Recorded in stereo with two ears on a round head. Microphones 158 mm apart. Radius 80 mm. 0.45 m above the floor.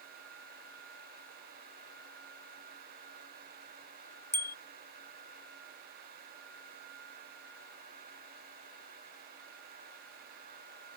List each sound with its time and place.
4.3 s a bicycle bell: 15° left (ahead or behind)